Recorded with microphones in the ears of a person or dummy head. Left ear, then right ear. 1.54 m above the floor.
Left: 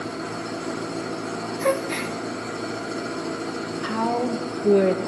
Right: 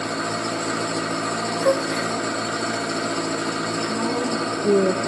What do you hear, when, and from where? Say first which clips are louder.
0.0 s an engine running: right 6 dB; 55° right (ahead or behind), 1.6 m
1.6 s a gasp: right 2 dB; 15° left (ahead or behind), 1.5 m
3.8 s a woman speaking: even; 30° left (ahead or behind), 1.7 m